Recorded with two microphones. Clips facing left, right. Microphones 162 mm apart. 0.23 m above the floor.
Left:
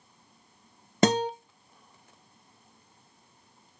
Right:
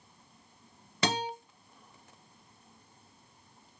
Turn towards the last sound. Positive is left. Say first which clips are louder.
# left 9 dB
turn(degrees=45)  # may be behind; listen again after turning